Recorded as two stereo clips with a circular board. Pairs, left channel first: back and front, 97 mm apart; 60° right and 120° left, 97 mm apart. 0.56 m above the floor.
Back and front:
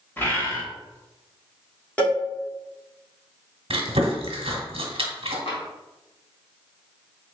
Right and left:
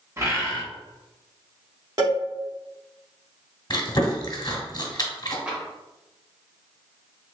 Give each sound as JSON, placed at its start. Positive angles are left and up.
{"t": 0.2, "sound": "a bird", "azimuth_deg": 135, "distance_m": 0.9}
{"t": 2.0, "sound": "a cowbell", "azimuth_deg": 115, "distance_m": 1.4}
{"t": 3.7, "sound": "chewing", "azimuth_deg": -15, "distance_m": 1.0}
{"t": 5.5, "sound": "tapping", "azimuth_deg": -165, "distance_m": 1.3}